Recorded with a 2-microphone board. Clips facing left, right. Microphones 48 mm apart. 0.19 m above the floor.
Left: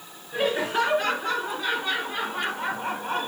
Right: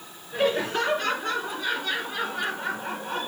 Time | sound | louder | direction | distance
0.3 | laughter | even | 10° left (ahead or behind) | 3 m